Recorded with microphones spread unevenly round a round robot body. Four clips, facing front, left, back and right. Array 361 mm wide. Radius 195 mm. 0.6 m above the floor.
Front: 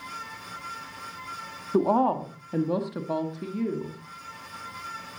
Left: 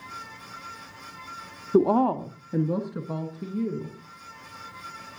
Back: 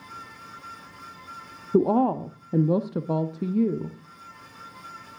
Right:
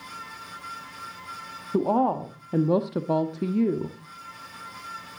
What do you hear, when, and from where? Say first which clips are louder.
1.7 s a woman speaking: left 2 dB, back 2 dB; 140° left, 0.8 m; by 4.0 s 105° right, 1.2 m